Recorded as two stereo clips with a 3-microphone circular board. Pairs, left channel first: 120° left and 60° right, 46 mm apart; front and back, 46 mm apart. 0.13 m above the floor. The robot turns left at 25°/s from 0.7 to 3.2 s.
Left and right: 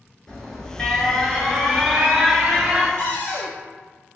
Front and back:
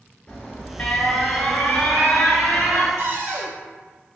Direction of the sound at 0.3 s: 55° left.